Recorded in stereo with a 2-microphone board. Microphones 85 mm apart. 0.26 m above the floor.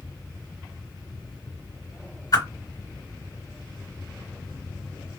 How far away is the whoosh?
About 1.4 m.